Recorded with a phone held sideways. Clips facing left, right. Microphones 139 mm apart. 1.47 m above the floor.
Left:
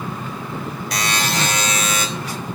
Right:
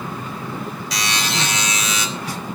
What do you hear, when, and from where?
0.9 s a buzzer: 55° left (ahead or behind), 3 m